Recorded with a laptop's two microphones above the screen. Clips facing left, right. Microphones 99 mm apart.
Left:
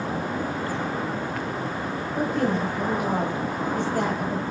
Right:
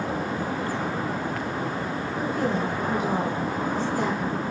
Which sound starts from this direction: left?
A woman speaking, at 2.1 s.